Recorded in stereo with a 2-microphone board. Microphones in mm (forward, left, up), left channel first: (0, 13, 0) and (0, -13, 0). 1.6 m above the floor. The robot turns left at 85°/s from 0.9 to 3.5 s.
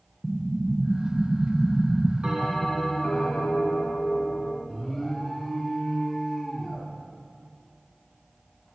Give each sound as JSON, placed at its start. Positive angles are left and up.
{"t": 0.2, "sound": "an explosion", "side_deg": 0, "distance_m": 0.9}
{"t": 2.2, "sound": "a bell", "azimuth_deg": -150, "distance_m": 3.0}
{"t": 4.7, "sound": "an alarm", "side_deg": 5, "distance_m": 2.5}